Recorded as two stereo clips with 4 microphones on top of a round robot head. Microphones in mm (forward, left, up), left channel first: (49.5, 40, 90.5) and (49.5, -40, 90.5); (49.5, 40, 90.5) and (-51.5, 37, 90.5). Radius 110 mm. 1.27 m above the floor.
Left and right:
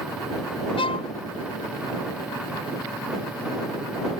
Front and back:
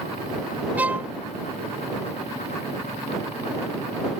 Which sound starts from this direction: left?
A violin, at 0.8 s.